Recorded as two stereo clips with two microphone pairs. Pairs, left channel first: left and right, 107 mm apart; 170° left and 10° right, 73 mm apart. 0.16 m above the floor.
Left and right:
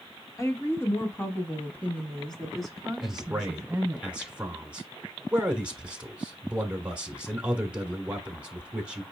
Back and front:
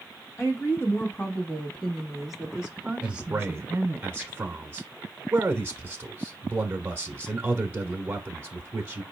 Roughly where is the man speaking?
Ahead right.